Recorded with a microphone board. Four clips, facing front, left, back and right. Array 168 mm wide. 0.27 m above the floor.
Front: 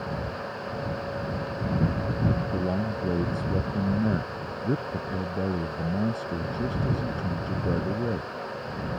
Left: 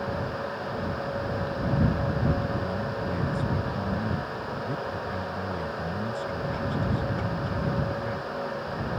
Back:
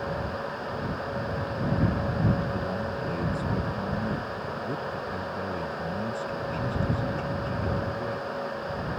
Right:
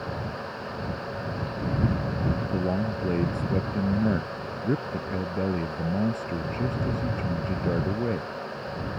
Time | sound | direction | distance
2.5 | a man speaking | 55° right | ?